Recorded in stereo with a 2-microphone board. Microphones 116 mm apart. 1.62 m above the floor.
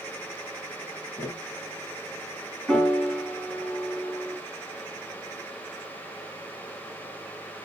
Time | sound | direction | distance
1.2 | tapping | 15° left (ahead or behind) | 0.9 m
2.7 | a piano | 5° left (ahead or behind) | 2.5 m